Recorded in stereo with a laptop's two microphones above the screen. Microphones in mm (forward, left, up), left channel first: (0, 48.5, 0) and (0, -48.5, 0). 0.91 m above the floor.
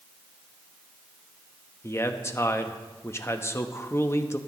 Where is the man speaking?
25° left (ahead or behind), 1.0 m.